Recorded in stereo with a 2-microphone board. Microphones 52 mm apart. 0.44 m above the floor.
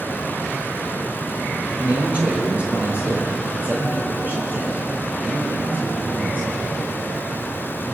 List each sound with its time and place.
1.8 s a man speaking: 25° right (ahead or behind), 7 m; by 6.5 s 40° right (ahead or behind), 10.5 m